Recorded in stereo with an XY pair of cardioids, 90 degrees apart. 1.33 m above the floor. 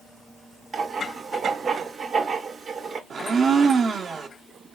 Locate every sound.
0.7 s writing: 50° right, 0.8 m
3.1 s a blender: 55° right, 0.7 m